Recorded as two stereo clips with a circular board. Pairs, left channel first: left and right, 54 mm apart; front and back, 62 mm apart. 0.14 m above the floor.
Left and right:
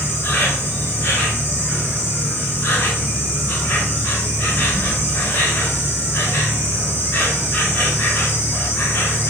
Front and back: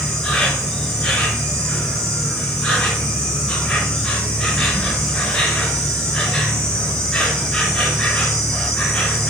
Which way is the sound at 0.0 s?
70° left.